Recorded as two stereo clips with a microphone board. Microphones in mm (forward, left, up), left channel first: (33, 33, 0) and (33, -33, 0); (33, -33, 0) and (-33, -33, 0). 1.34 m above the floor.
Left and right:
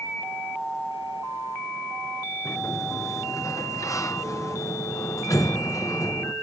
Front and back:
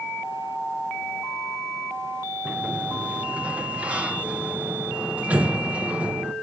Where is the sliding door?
115° left, 0.6 m.